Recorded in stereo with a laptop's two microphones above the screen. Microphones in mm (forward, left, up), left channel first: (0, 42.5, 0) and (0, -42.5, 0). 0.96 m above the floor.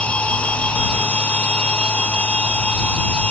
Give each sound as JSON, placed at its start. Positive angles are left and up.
{"t": 0.0, "sound": "a machine running", "side_deg": 15}